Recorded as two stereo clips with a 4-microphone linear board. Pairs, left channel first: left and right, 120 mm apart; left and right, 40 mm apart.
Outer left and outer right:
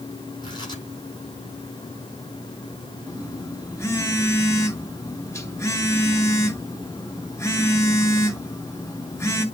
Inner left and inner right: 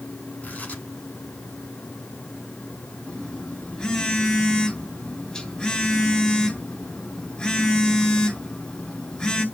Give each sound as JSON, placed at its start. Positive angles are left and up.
{"t": 0.4, "sound": "tearing paper", "side_deg": 40, "distance_m": 8.5}
{"t": 3.1, "sound": "a phone buzzing", "side_deg": 25, "distance_m": 2.5}